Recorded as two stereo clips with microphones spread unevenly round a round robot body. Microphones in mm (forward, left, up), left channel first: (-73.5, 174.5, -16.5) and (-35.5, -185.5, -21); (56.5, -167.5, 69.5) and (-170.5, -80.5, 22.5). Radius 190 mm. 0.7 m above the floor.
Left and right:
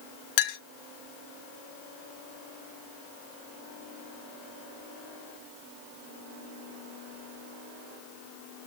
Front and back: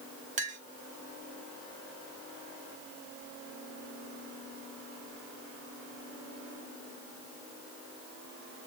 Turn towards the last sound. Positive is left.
turn(degrees=105)